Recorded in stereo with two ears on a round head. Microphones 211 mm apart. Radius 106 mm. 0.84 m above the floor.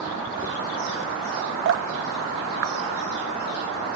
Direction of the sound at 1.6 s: 65° right (ahead or behind).